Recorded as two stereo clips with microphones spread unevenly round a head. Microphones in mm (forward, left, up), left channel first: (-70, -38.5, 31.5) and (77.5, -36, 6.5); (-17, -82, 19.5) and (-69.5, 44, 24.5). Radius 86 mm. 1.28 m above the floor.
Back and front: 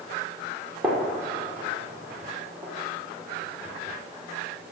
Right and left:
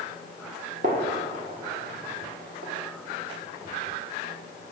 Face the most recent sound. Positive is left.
turn(degrees=80)